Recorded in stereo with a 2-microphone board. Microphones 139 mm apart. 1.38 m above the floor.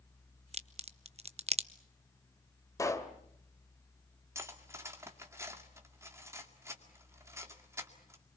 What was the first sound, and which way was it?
A crack, 50° right (ahead or behind).